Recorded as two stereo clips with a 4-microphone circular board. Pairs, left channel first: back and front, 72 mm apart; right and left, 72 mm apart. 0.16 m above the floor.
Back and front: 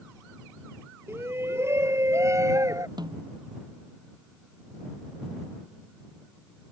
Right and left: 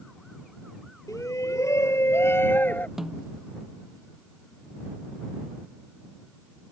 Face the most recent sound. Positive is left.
turn(degrees=5)